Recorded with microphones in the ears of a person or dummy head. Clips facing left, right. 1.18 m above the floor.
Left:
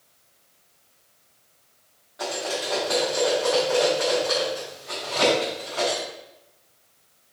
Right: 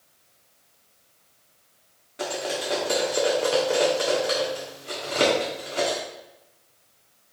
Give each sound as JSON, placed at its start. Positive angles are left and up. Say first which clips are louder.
{"t": 2.2, "sound": "cutlery clinking", "louder": "even", "side_deg": -35, "distance_m": 1.5}